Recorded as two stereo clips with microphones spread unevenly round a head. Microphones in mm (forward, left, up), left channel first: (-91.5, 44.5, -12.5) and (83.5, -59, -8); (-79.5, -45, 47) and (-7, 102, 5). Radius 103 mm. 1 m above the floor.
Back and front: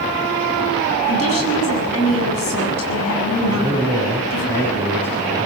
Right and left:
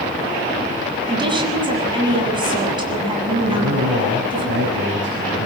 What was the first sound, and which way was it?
A woman speaking, 125° left.